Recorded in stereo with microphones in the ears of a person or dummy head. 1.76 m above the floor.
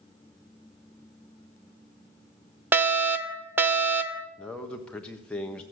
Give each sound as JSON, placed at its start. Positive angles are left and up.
{"t": 2.7, "sound": "a fire alarm", "side_deg": -10, "distance_m": 0.7}
{"t": 4.4, "sound": "a man speaking", "side_deg": 5, "distance_m": 1.1}